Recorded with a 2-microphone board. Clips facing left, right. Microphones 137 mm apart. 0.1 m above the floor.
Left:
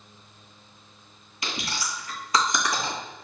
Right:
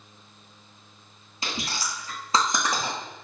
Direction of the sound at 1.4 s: 30° right (ahead or behind).